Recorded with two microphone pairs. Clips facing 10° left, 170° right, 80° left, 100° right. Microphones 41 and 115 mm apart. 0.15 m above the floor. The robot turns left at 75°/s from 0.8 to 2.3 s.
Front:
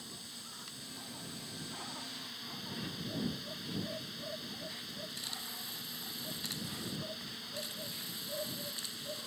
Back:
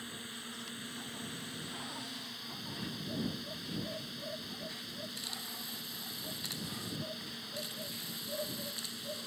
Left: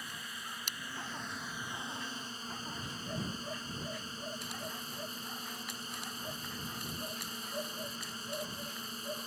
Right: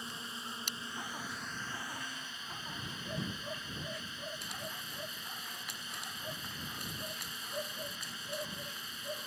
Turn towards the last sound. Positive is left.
turn(degrees=100)